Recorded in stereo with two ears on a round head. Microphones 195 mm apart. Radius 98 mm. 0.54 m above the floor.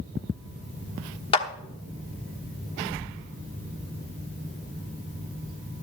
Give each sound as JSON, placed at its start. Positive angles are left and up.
{"t": 1.3, "sound": "a clap", "side_deg": 25, "distance_m": 1.0}